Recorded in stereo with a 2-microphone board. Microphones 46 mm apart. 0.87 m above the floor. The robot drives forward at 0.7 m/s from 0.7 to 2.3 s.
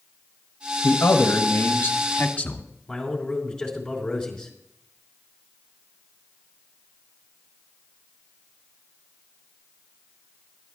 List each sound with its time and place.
0.8 s a man speaking: 65° left (ahead or behind), 0.9 m; by 2.6 s 35° left (ahead or behind), 1.4 m
2.9 s a man speaking: 15° left (ahead or behind), 3 m